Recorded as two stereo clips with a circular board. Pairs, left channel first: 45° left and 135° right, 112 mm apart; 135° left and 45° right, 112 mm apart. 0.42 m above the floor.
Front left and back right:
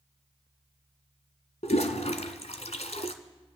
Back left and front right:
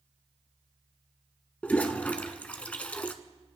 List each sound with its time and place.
1.6 s a toilet flushing: 55° left, 1.1 m